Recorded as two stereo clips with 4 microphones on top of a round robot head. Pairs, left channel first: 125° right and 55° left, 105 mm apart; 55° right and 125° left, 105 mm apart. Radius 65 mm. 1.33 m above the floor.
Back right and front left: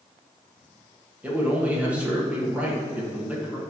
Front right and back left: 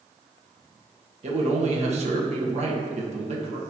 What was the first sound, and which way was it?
A man speaking, 130° left.